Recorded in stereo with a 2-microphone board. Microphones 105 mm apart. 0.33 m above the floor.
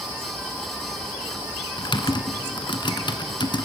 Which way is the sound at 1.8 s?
45° left (ahead or behind).